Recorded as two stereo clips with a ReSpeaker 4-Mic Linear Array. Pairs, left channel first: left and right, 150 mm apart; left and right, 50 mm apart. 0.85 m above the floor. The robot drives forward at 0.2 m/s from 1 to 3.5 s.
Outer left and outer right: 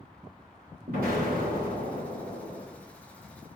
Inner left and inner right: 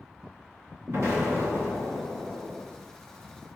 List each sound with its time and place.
0.9 s an explosion: 85° right, 2.5 m; by 2.6 s 80° right, 2.5 m